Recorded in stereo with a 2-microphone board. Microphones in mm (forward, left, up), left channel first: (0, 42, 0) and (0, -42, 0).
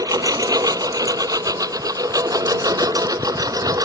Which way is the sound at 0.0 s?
45° right (ahead or behind).